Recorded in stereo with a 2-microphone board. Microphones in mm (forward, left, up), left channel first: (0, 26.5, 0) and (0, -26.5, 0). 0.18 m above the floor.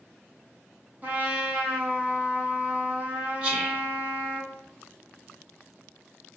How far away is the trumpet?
About 0.8 m.